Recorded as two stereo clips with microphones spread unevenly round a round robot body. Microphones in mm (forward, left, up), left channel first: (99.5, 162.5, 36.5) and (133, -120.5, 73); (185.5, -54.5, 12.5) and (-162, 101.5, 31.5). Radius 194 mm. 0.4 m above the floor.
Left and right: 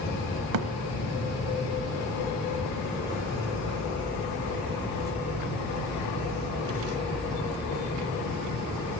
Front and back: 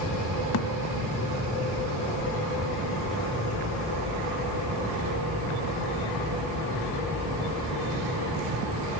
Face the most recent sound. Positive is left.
turn(degrees=-80)